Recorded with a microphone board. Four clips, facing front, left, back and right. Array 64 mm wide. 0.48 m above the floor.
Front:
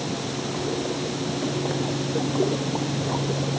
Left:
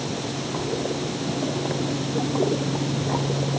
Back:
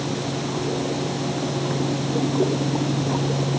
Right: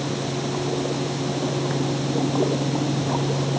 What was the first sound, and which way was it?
Only background noise.